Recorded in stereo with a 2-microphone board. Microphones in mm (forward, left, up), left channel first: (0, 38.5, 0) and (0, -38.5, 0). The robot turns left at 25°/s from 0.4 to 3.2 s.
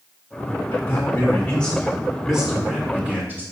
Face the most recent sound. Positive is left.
turn(degrees=-25)